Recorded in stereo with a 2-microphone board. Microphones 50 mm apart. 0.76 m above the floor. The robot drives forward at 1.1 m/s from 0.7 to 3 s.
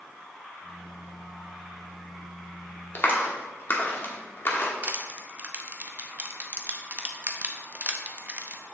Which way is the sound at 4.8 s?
30° right (ahead or behind).